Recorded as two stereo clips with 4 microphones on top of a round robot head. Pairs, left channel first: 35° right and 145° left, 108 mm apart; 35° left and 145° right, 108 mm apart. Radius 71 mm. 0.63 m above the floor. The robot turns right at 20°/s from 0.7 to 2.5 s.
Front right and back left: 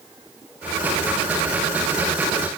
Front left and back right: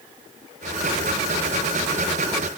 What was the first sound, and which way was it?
Only background noise.